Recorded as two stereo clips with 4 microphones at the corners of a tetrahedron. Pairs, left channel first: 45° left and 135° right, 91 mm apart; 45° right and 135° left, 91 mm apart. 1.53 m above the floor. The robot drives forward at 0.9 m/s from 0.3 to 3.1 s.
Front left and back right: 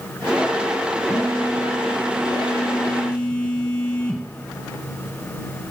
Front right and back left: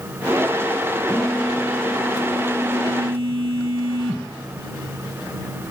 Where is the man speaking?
No man speaking in this recording.